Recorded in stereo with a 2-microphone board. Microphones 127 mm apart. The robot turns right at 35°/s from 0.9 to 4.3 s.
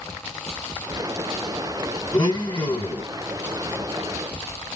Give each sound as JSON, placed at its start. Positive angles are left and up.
{"t": 2.1, "sound": "a blender", "azimuth_deg": 40, "distance_m": 2.0}